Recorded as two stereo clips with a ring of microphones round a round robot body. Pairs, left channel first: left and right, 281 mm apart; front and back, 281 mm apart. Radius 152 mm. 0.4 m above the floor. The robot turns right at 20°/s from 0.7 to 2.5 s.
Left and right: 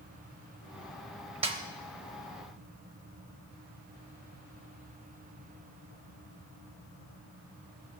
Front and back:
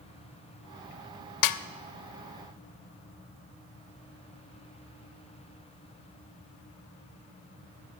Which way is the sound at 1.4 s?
20° right.